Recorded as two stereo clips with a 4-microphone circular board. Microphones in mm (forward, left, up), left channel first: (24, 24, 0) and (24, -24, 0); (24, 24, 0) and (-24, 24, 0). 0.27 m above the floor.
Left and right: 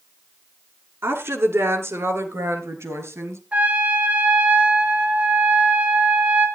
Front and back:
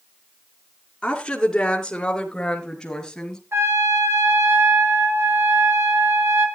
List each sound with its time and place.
1.0 s a woman speaking: 75° right, 2.5 m; by 3.4 s 80° right, 4 m
3.5 s a trumpet: 150° right, 2.5 m